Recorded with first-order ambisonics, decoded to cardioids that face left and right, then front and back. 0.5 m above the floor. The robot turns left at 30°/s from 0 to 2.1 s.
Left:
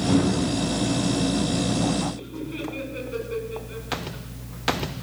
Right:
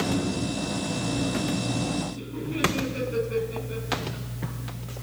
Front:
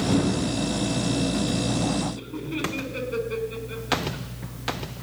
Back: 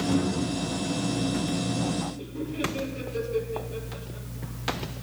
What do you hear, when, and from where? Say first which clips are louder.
2.1 s laughter: right 1 dB, front 2 dB; 5° left, 4.5 m